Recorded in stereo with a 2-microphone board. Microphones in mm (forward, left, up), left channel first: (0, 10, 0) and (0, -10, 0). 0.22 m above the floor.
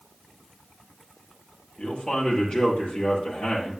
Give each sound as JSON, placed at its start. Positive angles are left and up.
{"t": 1.8, "sound": "a man speaking", "side_deg": 65, "distance_m": 5.0}